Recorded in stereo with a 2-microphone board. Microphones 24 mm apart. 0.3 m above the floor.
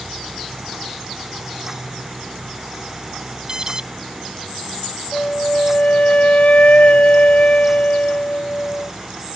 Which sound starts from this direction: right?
An alarm, at 3.5 s.